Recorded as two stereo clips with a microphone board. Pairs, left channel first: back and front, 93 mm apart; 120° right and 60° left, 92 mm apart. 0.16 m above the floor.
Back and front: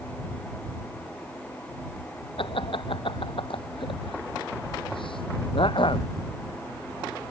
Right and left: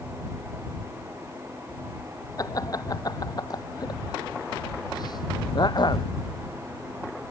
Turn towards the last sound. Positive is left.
turn(degrees=-160)